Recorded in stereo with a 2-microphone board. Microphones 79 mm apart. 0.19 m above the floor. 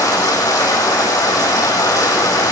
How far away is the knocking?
No knocking in this recording.